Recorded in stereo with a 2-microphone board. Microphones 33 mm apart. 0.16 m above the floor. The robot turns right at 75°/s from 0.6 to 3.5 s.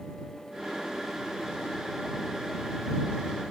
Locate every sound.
Only background noise.